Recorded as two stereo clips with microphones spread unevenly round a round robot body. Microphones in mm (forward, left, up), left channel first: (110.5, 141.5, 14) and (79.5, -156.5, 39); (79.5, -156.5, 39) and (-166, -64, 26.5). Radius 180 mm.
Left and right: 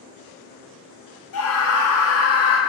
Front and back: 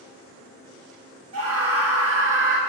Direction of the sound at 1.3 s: 125° left.